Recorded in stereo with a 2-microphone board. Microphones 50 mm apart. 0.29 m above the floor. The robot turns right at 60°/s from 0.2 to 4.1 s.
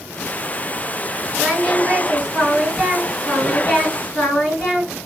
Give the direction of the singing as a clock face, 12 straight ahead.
3 o'clock.